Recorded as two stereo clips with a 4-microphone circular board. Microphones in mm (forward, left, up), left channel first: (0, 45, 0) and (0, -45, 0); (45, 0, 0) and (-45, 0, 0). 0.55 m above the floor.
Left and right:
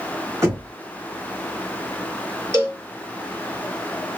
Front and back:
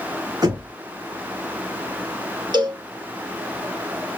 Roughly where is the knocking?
Behind right.